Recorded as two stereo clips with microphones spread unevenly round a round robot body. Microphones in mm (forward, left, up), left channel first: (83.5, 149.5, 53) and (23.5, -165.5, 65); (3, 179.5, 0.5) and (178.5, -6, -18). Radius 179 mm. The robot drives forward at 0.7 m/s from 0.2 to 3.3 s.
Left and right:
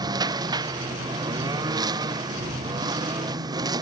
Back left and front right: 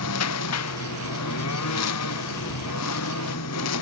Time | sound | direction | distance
0.0 | a lawn mower | straight behind | ?